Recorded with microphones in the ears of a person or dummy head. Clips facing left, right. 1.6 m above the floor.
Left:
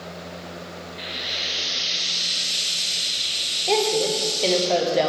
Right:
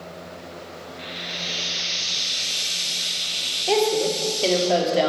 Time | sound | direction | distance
1.0 | frying | 50° left (ahead or behind) | 1.0 m
3.7 | a woman speaking | 5° right (ahead or behind) | 1.0 m